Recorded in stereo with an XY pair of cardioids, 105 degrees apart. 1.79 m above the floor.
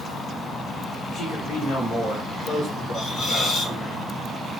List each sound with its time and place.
1.1 s a man speaking: 65° left, 2.5 m
2.9 s a hiss: 65° left, 3 m